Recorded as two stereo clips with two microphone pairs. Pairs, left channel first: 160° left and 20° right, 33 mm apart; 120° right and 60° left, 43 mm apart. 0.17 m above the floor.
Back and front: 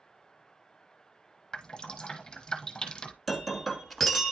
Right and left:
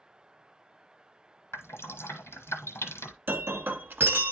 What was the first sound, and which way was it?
Dripping, 125° right.